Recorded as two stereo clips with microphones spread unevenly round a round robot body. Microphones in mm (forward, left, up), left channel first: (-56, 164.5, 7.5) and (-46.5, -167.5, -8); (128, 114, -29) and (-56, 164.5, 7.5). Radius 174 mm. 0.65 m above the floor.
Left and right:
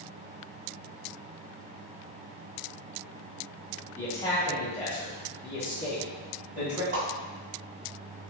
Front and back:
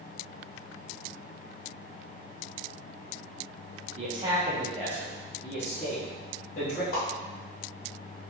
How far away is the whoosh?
About 1.0 m.